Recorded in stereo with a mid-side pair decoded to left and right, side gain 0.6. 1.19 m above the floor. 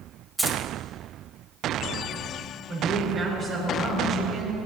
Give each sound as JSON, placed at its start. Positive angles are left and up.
{"t": 0.4, "sound": "keys jangling", "azimuth_deg": 5, "distance_m": 1.5}
{"t": 2.7, "sound": "a woman speaking", "azimuth_deg": -45, "distance_m": 4.5}